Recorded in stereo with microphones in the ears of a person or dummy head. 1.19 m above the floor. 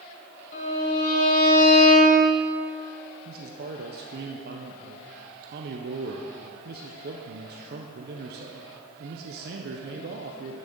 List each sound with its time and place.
0.5 s a violin: 50° left (ahead or behind), 2 m
3.2 s a man speaking: 50° right (ahead or behind), 0.6 m